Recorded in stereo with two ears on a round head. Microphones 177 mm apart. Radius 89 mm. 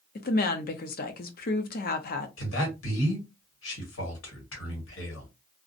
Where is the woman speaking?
45° left (ahead or behind), 0.5 m.